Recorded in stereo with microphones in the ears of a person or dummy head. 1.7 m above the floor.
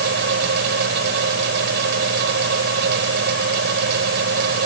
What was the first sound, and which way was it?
A fan, 55° right (ahead or behind).